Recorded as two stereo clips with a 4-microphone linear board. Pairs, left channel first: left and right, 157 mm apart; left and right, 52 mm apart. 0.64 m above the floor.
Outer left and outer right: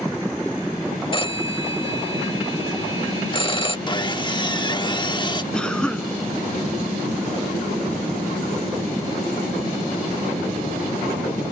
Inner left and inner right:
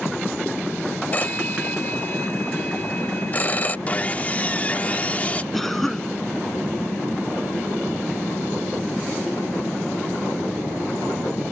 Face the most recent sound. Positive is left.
turn(degrees=5)  # may be behind; listen again after turning